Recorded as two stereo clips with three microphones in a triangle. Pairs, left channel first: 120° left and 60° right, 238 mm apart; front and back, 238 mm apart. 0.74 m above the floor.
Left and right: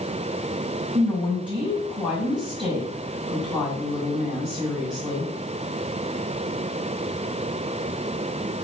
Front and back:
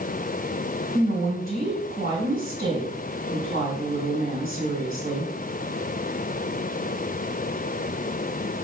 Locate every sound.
0.9 s a woman speaking: 130° right, 5.5 m